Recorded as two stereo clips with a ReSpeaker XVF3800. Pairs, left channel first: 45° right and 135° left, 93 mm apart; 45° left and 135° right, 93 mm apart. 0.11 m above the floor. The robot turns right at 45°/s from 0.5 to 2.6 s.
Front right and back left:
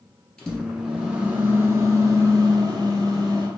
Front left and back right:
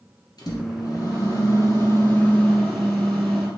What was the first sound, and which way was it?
A microwave, 40° left.